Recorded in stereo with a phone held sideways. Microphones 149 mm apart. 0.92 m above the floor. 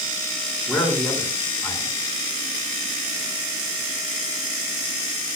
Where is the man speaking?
5° left (ahead or behind), 7 m.